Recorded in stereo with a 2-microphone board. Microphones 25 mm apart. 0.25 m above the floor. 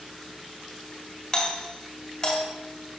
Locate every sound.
1.3 s a doorbell: 20° left (ahead or behind), 1.6 m